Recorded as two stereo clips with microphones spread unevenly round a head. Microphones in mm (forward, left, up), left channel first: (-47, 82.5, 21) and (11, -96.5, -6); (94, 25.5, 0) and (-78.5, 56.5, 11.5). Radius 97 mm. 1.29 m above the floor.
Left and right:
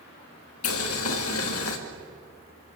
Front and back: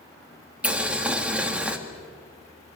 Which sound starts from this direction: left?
Boiling, at 0.6 s.